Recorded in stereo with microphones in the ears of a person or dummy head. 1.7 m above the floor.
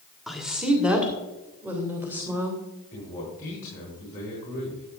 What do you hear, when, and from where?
0.3 s a woman speaking: centre (ahead or behind), 1.5 m; by 2.6 s 10° right (ahead or behind), 3 m
2.9 s a man speaking: 15° left (ahead or behind), 4 m